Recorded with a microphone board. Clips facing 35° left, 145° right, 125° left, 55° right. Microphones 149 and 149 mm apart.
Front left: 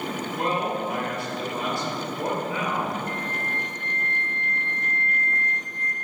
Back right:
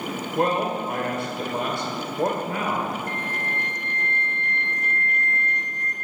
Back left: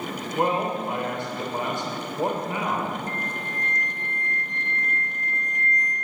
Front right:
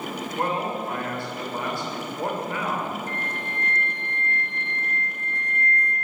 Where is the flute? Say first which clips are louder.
Even, even; 175° left, 0.9 m.